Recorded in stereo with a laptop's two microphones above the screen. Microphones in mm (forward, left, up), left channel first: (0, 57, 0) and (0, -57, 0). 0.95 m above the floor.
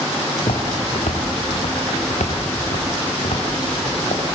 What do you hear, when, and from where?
0.4 s footsteps: 70° left (ahead or behind), 4.5 m; by 4.2 s 80° left, 6 m